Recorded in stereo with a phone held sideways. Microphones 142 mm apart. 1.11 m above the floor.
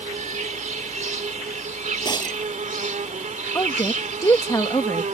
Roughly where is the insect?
Right.